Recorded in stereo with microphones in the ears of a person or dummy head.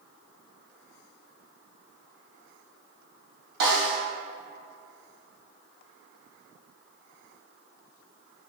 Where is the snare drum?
50° right (ahead or behind), 2 m.